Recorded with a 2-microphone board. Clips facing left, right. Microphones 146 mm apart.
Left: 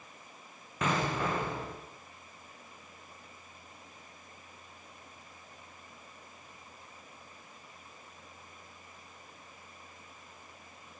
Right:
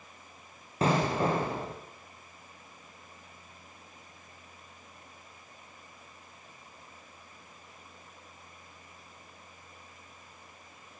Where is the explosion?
35° right (ahead or behind), 5.5 m.